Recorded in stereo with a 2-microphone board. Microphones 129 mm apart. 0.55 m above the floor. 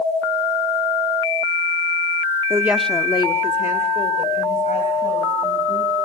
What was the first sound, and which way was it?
A woman speaking, 30° right (ahead or behind).